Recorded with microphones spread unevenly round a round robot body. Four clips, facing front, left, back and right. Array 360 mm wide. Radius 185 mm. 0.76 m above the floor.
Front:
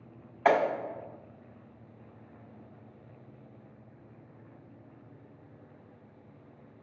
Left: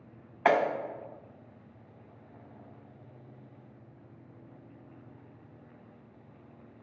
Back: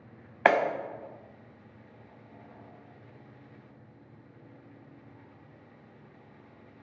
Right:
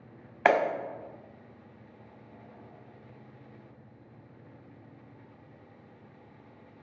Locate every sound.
0.5 s a clap: 150° right, 1.2 m